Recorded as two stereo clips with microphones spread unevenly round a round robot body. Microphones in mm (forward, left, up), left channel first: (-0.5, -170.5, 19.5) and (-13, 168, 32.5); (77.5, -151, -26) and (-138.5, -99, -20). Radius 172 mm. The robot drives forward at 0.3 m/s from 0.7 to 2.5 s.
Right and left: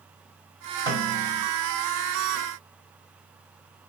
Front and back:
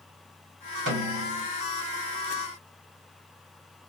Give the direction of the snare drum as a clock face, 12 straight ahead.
6 o'clock.